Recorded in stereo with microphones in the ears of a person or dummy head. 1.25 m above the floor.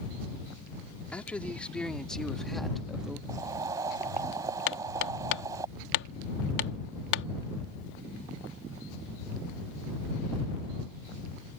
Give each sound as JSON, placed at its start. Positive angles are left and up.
{"t": 1.1, "sound": "a man speaking", "side_deg": 5}
{"t": 3.3, "sound": "boiling", "side_deg": -15}
{"t": 4.7, "sound": "hammering", "side_deg": 70}